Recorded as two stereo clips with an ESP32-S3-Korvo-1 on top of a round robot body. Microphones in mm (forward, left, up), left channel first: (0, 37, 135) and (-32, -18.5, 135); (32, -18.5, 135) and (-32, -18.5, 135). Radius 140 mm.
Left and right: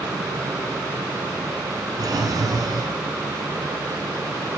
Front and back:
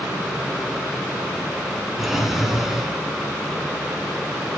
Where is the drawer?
95° right, 3 m.